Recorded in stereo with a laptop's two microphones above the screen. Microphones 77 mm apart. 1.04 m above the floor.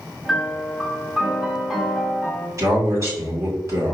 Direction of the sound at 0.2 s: 5° right (ahead or behind).